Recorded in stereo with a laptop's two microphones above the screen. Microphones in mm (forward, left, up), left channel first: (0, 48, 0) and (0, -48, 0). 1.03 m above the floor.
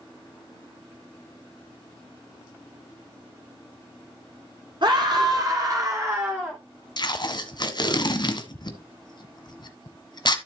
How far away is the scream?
About 2.5 m.